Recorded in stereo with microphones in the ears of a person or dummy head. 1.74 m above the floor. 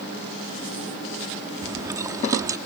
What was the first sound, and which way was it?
Chewing, 20° right (ahead or behind).